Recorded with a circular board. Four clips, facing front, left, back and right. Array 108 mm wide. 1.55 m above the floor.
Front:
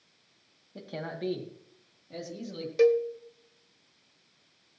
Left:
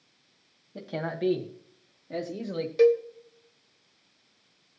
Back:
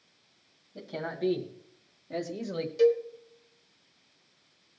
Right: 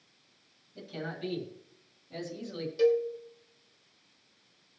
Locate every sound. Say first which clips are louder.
0.8 s a man speaking: left 7 dB, back 3 dB; 75° left, 2.5 m; by 2.7 s 135° left, 2 m
2.8 s a cowbell: left 5 dB, front 1 dB; 45° left, 1.4 m